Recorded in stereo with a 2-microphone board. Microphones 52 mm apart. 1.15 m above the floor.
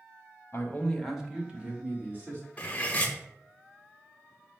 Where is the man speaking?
55° left (ahead or behind), 0.6 m; by 2.4 s 35° right (ahead or behind), 1.9 m.